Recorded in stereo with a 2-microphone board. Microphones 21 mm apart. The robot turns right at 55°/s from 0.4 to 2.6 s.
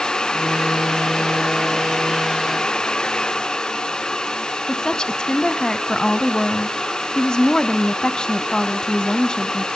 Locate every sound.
4.7 s a woman speaking: 35° left (ahead or behind), 1.3 m